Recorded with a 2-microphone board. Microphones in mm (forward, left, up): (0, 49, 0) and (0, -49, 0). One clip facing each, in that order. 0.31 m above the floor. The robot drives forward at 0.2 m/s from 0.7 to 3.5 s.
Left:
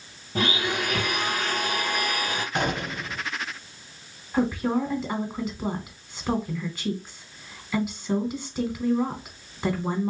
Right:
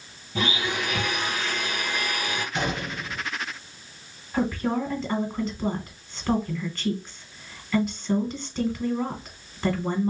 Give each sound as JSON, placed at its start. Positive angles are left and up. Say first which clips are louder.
{"t": 0.3, "sound": "a blender", "louder": "left 1 dB", "side_deg": 55, "distance_m": 1.1}
{"t": 2.5, "sound": "a gunshot", "louder": "left 3 dB", "side_deg": 55, "distance_m": 0.8}
{"t": 4.3, "sound": "a woman speaking", "louder": "left 1 dB", "side_deg": 10, "distance_m": 0.9}